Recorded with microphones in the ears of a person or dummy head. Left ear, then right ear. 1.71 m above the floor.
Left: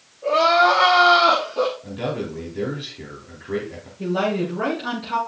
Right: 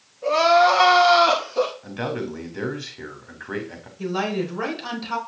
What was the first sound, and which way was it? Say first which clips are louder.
Crying: even; 80° right.